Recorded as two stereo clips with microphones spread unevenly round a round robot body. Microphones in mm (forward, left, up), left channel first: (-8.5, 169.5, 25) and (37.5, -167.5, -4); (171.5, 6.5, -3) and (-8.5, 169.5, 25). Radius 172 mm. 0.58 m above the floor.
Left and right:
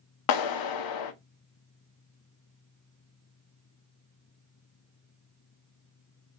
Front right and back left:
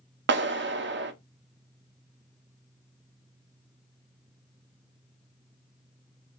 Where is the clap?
95° left, 0.7 m.